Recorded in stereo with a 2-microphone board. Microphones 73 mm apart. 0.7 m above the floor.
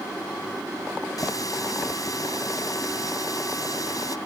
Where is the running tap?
55° left (ahead or behind).